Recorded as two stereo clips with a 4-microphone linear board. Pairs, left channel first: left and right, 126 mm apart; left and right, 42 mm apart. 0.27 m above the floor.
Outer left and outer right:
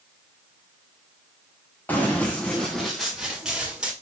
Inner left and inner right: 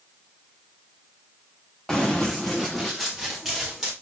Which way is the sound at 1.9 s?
15° left (ahead or behind).